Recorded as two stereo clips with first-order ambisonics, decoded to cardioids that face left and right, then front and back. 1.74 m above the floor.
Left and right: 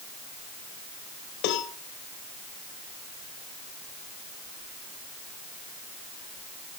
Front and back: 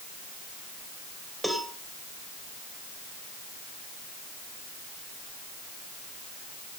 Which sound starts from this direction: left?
A cowbell, at 1.4 s.